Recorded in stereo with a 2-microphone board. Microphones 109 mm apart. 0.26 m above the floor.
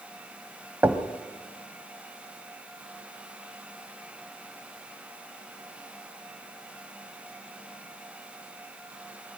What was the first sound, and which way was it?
Knocking, 20° right (ahead or behind).